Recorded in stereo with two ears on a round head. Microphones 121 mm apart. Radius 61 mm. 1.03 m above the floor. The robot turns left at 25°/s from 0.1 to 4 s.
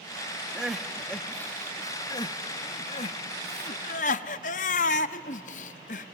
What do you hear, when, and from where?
0.6 s crying: 5° right (ahead or behind), 0.6 m; by 6.1 s 55° left (ahead or behind), 0.6 m